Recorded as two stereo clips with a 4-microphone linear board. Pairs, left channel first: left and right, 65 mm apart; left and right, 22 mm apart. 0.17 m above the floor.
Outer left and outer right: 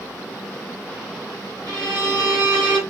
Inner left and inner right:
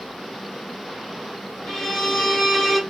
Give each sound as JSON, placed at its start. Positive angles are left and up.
{"t": 1.7, "sound": "a violin", "side_deg": 15, "distance_m": 2.5}